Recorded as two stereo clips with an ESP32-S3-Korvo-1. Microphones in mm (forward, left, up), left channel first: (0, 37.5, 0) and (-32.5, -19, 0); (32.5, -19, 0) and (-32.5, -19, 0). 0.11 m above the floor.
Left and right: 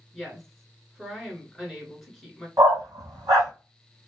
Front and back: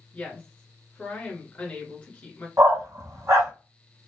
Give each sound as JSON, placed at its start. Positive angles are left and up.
{"t": 0.1, "sound": "a woman speaking", "azimuth_deg": -35, "distance_m": 1.3}
{"t": 2.6, "sound": "a dog barking", "azimuth_deg": -145, "distance_m": 1.5}